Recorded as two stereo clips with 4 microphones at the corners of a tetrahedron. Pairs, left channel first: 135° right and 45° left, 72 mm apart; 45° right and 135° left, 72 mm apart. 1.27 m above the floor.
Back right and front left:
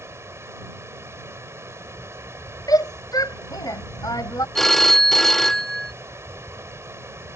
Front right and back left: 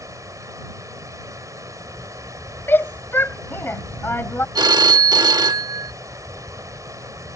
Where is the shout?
105° right.